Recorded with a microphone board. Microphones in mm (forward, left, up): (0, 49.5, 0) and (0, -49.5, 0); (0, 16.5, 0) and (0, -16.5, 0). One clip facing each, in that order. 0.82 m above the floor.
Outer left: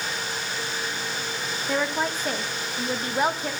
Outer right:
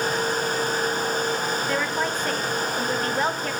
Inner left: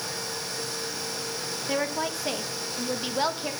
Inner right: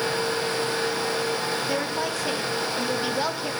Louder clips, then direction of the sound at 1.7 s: Outer left 4 dB, inner right 2 dB; 10° left (ahead or behind).